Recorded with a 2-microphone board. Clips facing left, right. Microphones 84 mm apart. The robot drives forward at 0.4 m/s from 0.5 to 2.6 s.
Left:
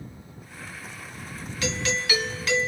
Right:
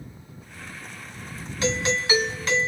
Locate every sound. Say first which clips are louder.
1.6 s a doorbell: right 4 dB; 35° right (ahead or behind), 2.5 m